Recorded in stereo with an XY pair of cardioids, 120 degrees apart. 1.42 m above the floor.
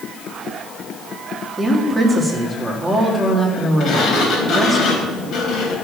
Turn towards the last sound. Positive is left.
turn(degrees=55)